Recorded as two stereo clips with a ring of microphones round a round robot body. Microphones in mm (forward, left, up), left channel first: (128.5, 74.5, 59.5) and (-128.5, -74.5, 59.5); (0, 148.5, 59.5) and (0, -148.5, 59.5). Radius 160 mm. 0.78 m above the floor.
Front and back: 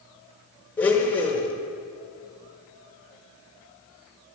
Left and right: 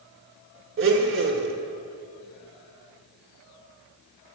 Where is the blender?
55° right, 0.9 m.